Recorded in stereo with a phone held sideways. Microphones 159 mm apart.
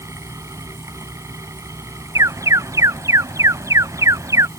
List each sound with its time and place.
0.0 s a fan: 20° right (ahead or behind)
2.1 s an alarm: 20° right (ahead or behind)